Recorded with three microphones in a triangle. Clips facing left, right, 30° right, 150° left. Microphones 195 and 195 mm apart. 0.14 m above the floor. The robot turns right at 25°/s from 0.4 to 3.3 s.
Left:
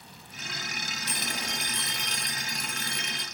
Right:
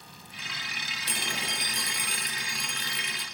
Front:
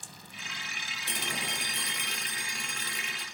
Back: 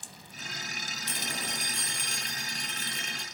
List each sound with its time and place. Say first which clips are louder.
1.1 s a phone ringing: right 1 dB, front 1 dB; 35° right, 2 m; by 3.2 s 20° left, 2 m